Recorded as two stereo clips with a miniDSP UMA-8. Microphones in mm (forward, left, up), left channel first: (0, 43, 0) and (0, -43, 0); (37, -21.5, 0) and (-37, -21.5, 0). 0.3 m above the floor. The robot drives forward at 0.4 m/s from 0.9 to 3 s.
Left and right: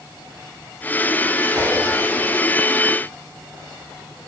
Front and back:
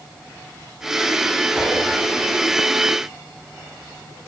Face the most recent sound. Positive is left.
turn(degrees=-115)